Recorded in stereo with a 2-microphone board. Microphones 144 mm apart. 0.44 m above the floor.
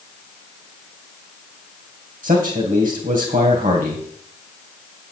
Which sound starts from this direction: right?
A man speaking, at 2.2 s.